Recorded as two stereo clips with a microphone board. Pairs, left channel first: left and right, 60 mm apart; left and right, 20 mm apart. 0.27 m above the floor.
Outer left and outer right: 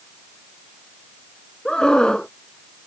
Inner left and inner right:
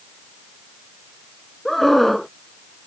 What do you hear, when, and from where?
1.6 s a scream: 15° left (ahead or behind)